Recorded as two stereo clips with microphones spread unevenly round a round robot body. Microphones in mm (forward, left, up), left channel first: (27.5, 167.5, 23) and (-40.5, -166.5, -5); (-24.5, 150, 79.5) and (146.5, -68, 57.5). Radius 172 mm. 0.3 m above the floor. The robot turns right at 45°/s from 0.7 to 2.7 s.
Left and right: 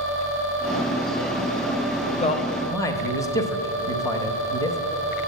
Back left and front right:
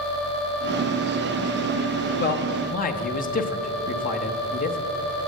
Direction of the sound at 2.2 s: 135° left.